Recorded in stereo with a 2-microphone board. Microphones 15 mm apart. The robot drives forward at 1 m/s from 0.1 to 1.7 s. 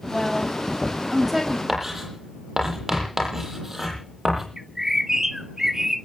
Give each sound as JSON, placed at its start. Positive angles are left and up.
{"t": 0.1, "sound": "a woman speaking", "side_deg": -5, "distance_m": 5.5}
{"t": 1.7, "sound": "writing", "side_deg": -20, "distance_m": 9.5}
{"t": 4.6, "sound": "a bird", "side_deg": -30, "distance_m": 2.0}